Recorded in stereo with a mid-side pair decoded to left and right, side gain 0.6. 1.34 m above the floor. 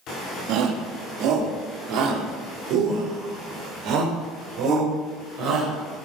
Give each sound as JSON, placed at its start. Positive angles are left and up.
{"t": 0.5, "sound": "a shout", "azimuth_deg": -70, "distance_m": 2.5}